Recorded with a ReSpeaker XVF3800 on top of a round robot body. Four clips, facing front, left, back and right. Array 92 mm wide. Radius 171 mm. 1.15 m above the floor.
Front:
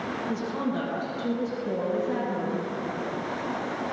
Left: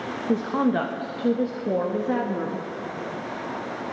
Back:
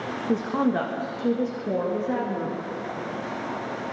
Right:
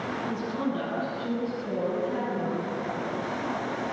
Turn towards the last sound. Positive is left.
turn(degrees=110)